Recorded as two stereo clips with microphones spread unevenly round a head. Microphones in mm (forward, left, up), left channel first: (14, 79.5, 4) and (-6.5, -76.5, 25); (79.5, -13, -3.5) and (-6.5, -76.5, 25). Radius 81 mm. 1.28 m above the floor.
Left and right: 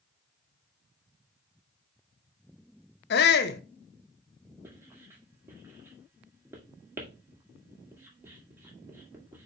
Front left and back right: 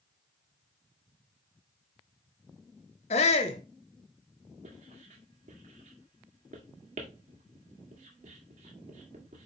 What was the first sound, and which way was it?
A shout, 70° left.